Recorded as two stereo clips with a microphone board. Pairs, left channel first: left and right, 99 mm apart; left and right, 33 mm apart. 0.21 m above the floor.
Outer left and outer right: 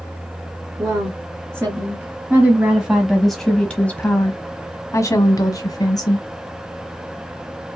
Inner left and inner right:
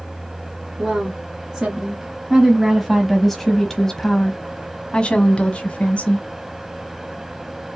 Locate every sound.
0.8 s a woman speaking: 25° right (ahead or behind), 1.9 m; by 6.2 s 40° left (ahead or behind), 1.7 m